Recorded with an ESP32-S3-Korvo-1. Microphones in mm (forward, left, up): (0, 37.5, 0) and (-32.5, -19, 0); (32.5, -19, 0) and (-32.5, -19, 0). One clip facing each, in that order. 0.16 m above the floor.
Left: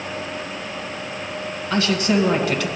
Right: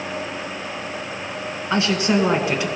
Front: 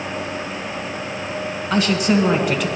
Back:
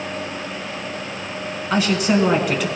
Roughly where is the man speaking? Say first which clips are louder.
Even, even; right.